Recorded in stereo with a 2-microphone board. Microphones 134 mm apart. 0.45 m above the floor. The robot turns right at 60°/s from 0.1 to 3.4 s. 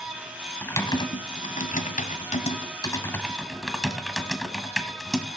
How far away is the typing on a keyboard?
About 1.4 m.